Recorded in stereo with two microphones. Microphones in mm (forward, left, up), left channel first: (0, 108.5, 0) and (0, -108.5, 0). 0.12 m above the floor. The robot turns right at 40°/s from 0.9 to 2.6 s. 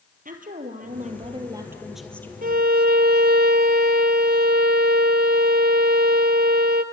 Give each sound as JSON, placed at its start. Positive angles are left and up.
{"t": 0.2, "sound": "a woman speaking", "azimuth_deg": -45, "distance_m": 3.0}
{"t": 2.4, "sound": "a violin", "side_deg": -40, "distance_m": 1.0}